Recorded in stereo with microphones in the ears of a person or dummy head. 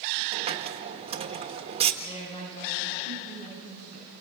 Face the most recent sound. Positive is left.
turn(degrees=40)  # may be behind; listen again after turning